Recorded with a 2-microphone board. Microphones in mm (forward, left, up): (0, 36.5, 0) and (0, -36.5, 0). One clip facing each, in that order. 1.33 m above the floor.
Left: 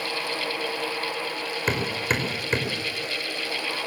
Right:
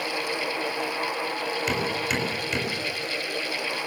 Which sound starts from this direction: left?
Hammering, at 1.7 s.